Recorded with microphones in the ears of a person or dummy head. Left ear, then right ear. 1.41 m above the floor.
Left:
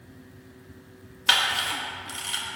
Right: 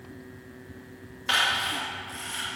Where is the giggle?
No giggle in this recording.